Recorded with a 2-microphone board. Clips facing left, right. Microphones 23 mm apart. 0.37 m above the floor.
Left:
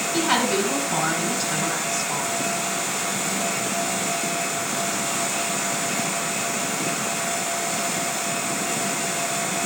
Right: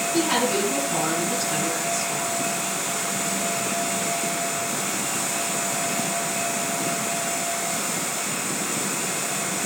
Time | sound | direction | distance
0.1 | a woman speaking | 40° left (ahead or behind) | 4 m